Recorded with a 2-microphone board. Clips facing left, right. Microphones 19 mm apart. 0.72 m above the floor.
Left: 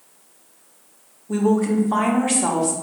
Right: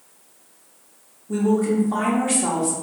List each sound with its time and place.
1.3 s a woman speaking: 25° left (ahead or behind), 0.8 m